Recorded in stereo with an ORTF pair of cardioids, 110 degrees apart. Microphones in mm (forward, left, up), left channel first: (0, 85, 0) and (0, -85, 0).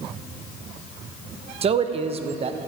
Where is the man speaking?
40° right, 0.9 m.